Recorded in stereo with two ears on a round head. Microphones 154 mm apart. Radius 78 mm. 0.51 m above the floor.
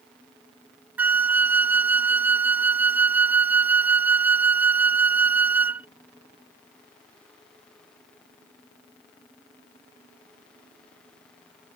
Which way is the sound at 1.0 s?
10° right (ahead or behind).